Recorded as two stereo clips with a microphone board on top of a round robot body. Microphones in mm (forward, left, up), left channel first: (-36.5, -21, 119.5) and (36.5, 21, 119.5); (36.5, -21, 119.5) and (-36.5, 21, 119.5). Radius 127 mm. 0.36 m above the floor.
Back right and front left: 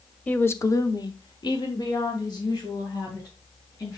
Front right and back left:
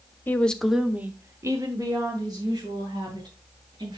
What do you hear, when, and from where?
0.3 s a woman speaking: 90° right, 1.2 m; by 4.0 s 170° left, 4.5 m